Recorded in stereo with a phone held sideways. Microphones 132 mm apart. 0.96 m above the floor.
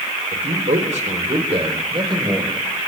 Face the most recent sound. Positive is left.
turn(degrees=-30)  # may be behind; listen again after turning